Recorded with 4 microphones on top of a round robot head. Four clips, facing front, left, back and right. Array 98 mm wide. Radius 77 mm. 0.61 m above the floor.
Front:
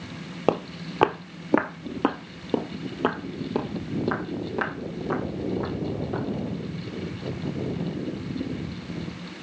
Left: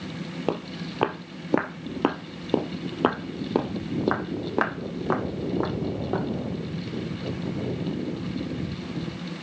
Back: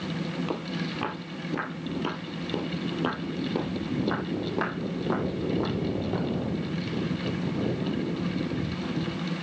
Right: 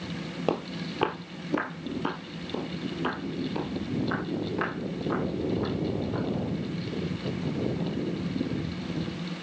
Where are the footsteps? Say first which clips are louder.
Even, front 6 dB; straight ahead, 1.1 m; by 6.3 s 100° left, 2.5 m.